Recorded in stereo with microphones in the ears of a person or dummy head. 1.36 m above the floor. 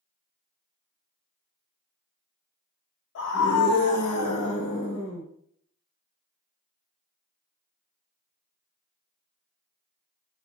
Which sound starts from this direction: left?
A scream, at 3.1 s.